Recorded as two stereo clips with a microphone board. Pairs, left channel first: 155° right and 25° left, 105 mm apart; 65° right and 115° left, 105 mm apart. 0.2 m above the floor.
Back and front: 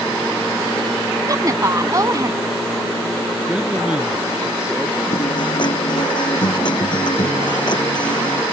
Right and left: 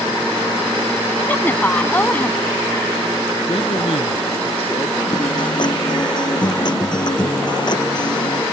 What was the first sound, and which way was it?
A woman speaking, 5° right.